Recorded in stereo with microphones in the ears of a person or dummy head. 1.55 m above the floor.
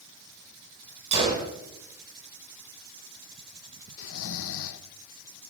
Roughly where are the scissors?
No scissors in this recording.